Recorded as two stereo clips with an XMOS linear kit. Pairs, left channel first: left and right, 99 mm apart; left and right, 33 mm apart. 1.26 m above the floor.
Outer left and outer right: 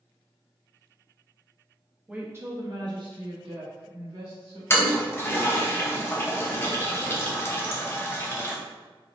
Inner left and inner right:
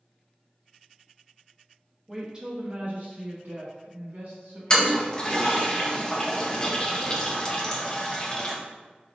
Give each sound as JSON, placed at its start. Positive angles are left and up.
{"t": 2.1, "sound": "a woman speaking", "side_deg": -10, "distance_m": 0.8}
{"t": 4.7, "sound": "a toilet flushing", "side_deg": 25, "distance_m": 0.6}